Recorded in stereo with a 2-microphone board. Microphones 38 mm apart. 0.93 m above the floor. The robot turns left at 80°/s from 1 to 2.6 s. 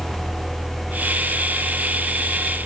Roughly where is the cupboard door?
No cupboard door in this recording.